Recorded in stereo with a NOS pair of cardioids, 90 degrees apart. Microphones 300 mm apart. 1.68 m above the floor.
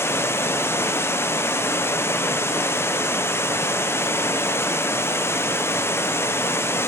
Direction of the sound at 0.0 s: 10° left.